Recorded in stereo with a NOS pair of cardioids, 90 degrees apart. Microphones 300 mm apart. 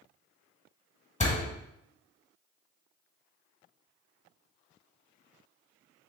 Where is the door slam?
25° left, 1.2 m.